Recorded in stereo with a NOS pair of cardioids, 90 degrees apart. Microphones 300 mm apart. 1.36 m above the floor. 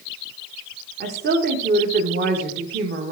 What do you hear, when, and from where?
1.0 s a woman speaking: 35° right, 1.3 m